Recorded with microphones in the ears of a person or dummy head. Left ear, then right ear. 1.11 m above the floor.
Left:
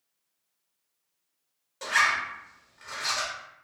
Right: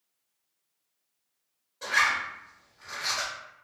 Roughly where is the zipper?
Left.